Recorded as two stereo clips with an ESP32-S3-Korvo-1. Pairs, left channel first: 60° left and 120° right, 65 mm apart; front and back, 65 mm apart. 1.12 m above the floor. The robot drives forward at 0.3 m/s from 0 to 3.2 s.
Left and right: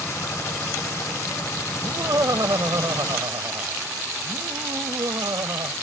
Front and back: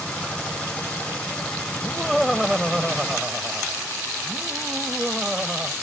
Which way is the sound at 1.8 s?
90° right.